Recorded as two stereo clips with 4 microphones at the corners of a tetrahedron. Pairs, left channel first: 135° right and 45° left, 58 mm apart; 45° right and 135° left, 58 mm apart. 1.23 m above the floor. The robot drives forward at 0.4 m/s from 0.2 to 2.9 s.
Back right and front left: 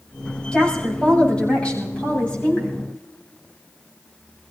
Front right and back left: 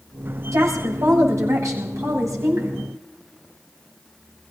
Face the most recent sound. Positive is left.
turn(degrees=155)